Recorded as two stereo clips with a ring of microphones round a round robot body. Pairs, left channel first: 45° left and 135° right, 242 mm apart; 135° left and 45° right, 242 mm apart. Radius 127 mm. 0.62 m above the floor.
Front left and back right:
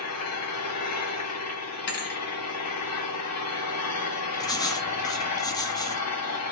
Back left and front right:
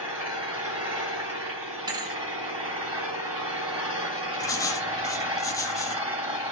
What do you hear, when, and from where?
0.0 s an engine running: 35° left, 3 m
1.9 s a thud: 20° left, 0.6 m
4.4 s writing: 85° left, 0.6 m